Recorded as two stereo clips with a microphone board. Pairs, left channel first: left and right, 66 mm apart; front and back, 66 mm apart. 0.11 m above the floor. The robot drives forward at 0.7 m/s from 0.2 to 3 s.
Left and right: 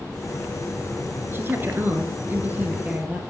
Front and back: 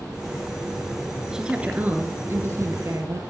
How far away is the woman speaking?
About 1.2 m.